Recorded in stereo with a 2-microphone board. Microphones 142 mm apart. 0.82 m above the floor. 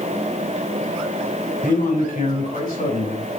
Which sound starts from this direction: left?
A man speaking, at 1.6 s.